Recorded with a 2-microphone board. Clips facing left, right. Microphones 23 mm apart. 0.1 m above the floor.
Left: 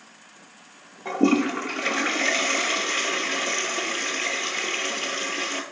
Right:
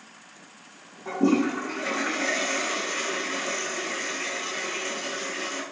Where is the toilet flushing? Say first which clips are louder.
Left 2 dB; 55° left (ahead or behind), 0.6 m.